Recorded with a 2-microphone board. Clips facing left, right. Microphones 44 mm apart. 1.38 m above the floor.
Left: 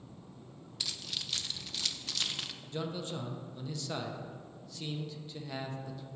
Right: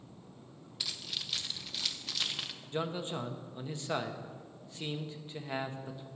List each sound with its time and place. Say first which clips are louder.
0.8 s keys jangling: even; 5° right (ahead or behind), 0.6 m
2.7 s a man speaking: right 3 dB; 30° right (ahead or behind), 0.8 m